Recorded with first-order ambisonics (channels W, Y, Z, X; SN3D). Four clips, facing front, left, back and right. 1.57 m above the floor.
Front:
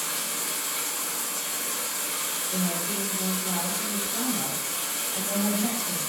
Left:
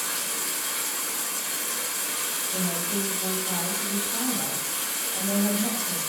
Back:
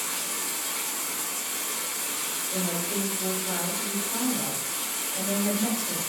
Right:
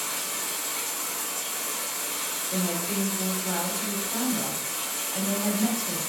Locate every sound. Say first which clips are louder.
0.0 s running water: left 1 dB, front 1 dB; 60° left, 1.1 m
2.5 s a woman speaking: right 2 dB, even; 90° right, 1.4 m